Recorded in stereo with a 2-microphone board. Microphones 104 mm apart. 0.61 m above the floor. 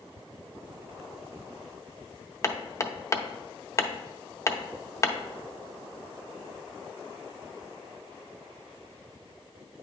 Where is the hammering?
30° left (ahead or behind), 0.6 m.